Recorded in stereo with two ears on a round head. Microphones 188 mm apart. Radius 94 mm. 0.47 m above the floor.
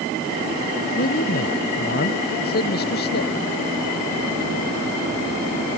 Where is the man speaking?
45° left (ahead or behind); by 3.3 s 50° left (ahead or behind).